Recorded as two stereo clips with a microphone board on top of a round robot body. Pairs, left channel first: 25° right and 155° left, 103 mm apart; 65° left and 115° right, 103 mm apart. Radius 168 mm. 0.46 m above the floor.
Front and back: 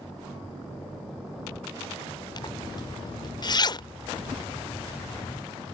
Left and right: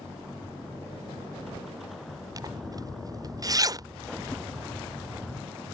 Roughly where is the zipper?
Ahead right.